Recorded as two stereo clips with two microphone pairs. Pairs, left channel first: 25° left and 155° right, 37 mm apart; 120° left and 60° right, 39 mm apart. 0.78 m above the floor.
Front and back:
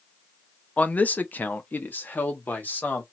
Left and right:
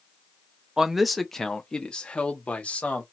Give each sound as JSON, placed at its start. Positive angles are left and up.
{"t": 0.8, "sound": "a man speaking", "azimuth_deg": 5, "distance_m": 0.6}